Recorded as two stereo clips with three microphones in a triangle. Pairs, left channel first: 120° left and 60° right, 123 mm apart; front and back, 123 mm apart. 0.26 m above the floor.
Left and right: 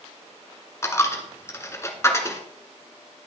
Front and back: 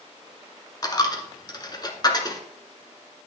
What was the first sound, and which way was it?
A dropped coin, 55° left.